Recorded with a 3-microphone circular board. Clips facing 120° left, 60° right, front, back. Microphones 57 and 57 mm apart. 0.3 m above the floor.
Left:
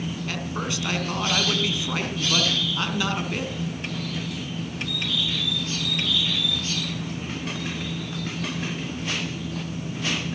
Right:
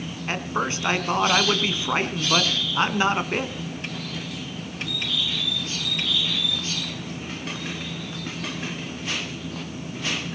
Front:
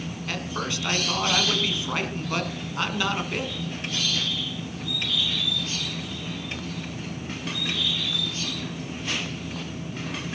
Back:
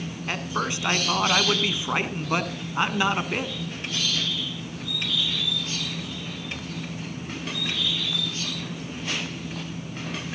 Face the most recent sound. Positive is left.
turn(degrees=-115)